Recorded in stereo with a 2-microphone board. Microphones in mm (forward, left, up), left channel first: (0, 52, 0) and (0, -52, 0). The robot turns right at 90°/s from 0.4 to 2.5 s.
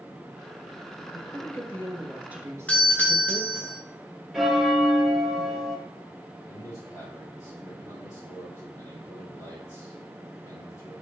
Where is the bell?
Centre (ahead or behind), 2 m.